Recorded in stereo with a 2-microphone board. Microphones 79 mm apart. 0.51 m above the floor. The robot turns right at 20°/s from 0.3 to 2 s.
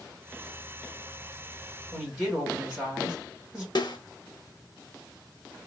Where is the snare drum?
65° left (ahead or behind), 0.7 m.